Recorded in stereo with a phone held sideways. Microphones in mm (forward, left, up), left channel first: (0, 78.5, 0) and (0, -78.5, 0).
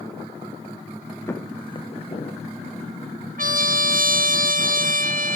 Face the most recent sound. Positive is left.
turn(degrees=-60)  # may be behind; listen again after turning